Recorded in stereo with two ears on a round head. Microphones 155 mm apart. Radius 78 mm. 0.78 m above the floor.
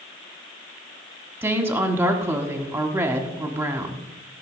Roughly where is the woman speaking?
Centre.